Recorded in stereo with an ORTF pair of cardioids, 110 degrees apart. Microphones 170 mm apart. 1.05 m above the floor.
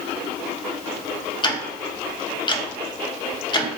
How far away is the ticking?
About 0.6 m.